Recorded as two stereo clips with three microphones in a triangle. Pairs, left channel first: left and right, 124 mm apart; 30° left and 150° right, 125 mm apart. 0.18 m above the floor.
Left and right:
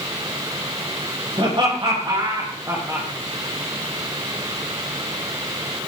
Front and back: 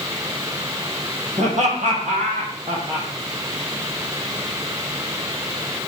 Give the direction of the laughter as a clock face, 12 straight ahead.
4 o'clock.